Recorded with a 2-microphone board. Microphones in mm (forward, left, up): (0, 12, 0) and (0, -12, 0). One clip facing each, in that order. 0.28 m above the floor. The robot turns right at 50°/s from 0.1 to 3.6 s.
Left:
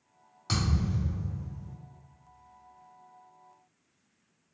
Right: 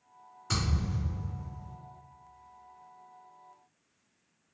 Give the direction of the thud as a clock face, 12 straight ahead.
8 o'clock.